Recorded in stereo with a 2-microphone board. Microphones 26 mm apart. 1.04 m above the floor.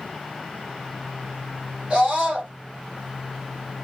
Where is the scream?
60° right (ahead or behind), 2.5 m.